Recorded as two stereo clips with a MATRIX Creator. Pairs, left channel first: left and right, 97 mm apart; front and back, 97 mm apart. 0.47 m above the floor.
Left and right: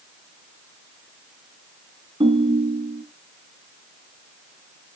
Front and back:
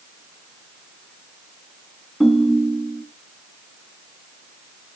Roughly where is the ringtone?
Right.